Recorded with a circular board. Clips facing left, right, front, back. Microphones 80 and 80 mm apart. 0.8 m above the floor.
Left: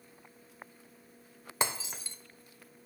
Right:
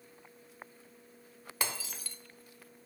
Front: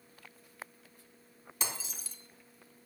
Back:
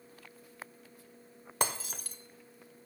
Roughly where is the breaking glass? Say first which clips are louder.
Left 4 dB, back 7 dB; behind left.